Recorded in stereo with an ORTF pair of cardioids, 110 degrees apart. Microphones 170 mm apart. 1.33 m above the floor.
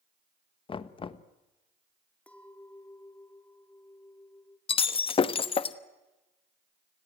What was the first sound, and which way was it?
Knocking, 30° left.